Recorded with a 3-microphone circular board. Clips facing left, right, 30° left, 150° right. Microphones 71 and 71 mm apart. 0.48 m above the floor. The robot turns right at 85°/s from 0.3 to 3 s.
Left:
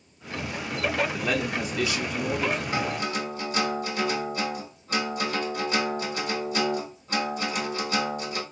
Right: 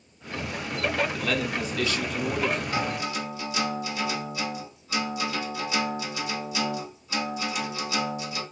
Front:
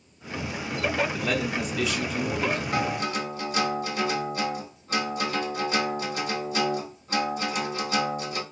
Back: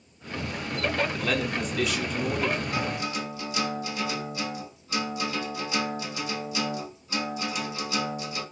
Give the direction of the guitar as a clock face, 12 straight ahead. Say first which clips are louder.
Left 1 dB, front 3 dB; 11 o'clock.